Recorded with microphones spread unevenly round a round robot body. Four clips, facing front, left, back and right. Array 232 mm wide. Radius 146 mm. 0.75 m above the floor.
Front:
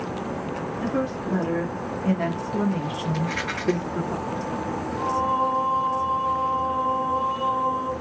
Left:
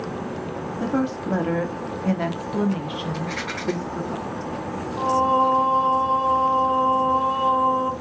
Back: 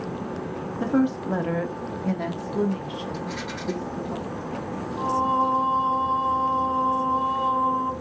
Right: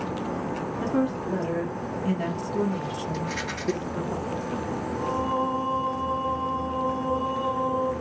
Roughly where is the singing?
Left.